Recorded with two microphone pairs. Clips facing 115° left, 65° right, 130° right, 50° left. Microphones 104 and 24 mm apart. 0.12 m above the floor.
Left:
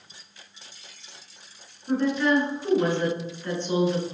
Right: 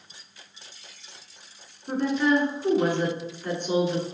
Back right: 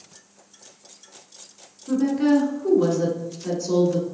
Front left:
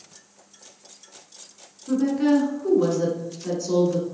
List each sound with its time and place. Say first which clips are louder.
1.9 s a woman speaking: even, back right 1 dB; 35° right, 1.2 m